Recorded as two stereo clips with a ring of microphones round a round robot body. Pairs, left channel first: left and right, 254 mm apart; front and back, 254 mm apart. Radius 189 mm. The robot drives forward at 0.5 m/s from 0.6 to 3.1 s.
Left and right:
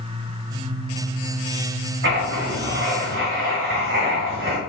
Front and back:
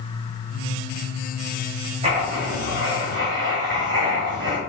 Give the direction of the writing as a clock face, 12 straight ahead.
4 o'clock.